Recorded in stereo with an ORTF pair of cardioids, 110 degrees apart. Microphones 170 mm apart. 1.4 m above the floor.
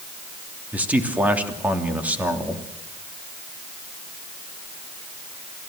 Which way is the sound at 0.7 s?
10° right.